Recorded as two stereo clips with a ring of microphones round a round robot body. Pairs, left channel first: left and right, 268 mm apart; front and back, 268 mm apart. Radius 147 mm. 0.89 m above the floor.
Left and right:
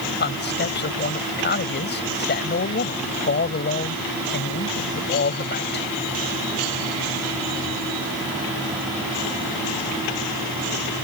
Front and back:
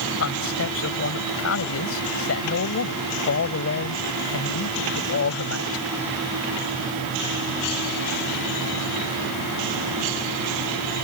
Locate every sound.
0.2 s a man speaking: 35° left